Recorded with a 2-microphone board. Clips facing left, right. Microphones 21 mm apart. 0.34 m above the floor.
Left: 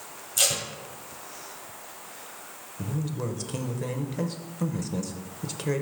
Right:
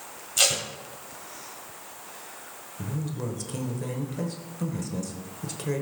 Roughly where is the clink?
I don't hear a clink.